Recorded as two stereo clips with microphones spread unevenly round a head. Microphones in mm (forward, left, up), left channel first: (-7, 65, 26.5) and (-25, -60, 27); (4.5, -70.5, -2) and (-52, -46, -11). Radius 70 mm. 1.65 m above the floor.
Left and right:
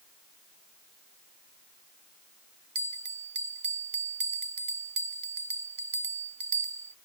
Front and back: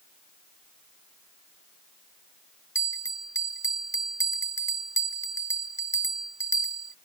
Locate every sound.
2.8 s a bell: 50° right